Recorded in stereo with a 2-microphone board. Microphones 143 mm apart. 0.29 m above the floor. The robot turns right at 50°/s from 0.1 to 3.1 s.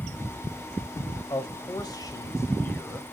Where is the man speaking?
80° left, 1.3 m; by 3.0 s 170° left, 1.3 m.